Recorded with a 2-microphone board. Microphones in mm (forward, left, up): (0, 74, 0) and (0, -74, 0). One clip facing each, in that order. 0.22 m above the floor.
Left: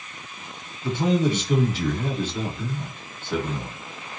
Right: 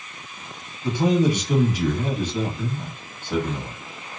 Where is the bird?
I don't hear a bird.